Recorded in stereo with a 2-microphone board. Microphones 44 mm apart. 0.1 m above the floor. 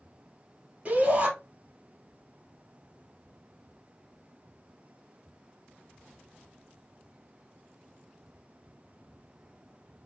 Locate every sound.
0.8 s a shout: 35° right (ahead or behind), 3 m